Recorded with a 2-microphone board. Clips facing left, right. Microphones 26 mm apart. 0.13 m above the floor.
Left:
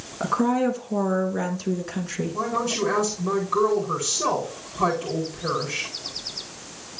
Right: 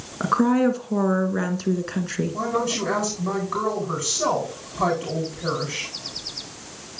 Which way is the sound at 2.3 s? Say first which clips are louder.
Even; 10° right (ahead or behind).